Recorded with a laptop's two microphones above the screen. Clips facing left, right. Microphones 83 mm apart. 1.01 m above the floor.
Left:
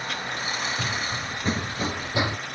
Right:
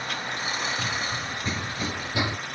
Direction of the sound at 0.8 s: 55° left (ahead or behind).